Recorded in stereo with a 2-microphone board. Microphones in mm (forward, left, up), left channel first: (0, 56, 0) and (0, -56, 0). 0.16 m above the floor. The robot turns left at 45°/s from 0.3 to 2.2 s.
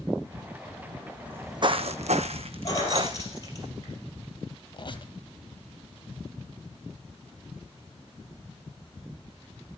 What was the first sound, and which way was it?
Footsteps, 10° right (ahead or behind).